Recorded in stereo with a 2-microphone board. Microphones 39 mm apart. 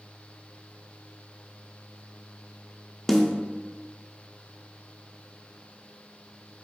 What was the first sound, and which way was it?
A snare drum, 5° left (ahead or behind).